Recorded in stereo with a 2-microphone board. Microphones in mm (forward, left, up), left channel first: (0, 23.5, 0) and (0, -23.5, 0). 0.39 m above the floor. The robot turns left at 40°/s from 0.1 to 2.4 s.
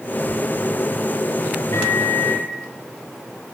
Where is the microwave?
70° left (ahead or behind), 9.5 m; by 2.5 s 45° left (ahead or behind), 9.5 m.